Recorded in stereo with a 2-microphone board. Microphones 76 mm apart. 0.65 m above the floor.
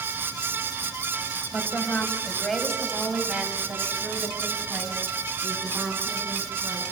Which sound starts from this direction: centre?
A woman speaking, at 1.5 s.